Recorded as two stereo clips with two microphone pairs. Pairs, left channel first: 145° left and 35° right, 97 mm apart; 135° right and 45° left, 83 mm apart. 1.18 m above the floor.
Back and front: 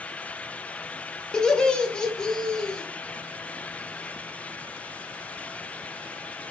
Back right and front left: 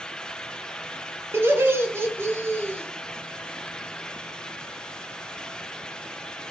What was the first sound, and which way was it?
Laughter, 65° left.